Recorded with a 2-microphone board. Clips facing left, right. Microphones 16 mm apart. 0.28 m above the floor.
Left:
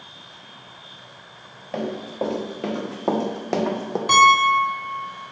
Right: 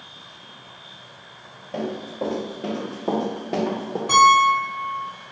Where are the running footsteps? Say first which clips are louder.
Left 1 dB; 75° left (ahead or behind), 1.8 m; by 4.0 s 45° left (ahead or behind), 0.7 m.